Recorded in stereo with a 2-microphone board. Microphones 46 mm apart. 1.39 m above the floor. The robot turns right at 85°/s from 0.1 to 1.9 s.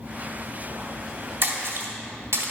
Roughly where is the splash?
Right.